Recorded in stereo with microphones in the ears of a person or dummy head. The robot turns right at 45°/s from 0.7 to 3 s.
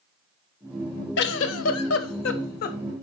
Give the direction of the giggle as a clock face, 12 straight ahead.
10 o'clock.